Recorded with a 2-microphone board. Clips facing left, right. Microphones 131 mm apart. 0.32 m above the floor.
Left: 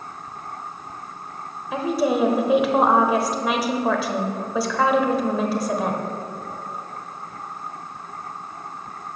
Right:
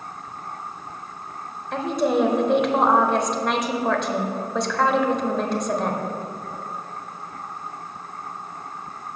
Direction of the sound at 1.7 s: 5° left (ahead or behind).